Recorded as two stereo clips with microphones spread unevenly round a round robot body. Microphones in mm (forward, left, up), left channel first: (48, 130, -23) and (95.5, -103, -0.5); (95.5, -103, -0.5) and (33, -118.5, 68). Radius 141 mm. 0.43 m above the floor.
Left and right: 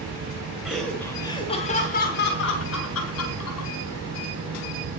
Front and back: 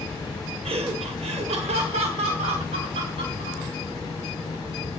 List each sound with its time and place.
0.7 s laughter: 170° right, 1.9 m; by 3.7 s 125° left, 3 m